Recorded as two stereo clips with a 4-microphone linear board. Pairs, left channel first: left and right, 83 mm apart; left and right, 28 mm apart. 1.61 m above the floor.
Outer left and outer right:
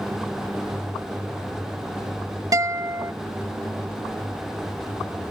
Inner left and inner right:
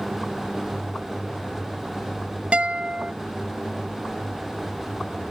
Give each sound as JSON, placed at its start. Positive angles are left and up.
{"t": 2.5, "sound": "a guitar", "side_deg": -45}